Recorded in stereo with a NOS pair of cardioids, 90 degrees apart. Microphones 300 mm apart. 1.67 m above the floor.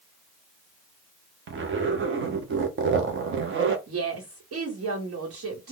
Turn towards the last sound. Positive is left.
turn(degrees=-55)